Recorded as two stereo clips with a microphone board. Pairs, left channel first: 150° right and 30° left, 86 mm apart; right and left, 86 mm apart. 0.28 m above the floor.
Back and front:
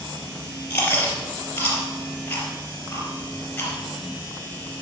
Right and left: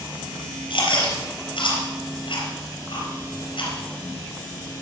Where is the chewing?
80° right, 4 m.